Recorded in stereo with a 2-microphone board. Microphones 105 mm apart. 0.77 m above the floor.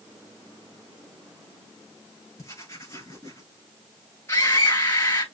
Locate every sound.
2.4 s writing: 30° left (ahead or behind), 5 m
4.3 s a scream: 25° left (ahead or behind), 6 m